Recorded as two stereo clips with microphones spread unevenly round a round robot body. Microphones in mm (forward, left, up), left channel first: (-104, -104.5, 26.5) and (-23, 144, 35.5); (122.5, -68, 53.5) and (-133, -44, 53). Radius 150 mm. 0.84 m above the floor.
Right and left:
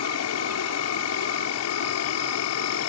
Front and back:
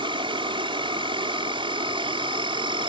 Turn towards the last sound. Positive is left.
turn(degrees=-115)